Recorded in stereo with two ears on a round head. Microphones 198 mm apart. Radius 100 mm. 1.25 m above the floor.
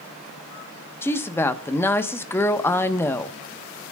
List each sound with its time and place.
1.0 s a woman speaking: 10° left (ahead or behind), 1.0 m